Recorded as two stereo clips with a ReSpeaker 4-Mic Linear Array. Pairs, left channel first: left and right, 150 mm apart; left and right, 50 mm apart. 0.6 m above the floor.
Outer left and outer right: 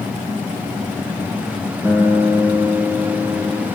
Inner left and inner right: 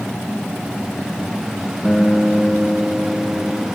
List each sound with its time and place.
1.8 s a guitar: 20° right (ahead or behind), 1.9 m